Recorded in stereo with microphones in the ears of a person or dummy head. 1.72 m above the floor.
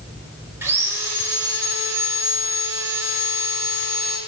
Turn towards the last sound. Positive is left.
turn(degrees=-20)  # may be behind; listen again after turning